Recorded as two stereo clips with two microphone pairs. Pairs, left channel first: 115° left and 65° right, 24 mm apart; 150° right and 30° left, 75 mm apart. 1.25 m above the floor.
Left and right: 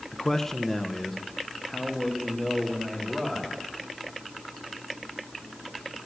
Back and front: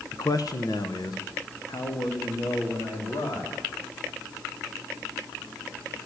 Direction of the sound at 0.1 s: 175° left.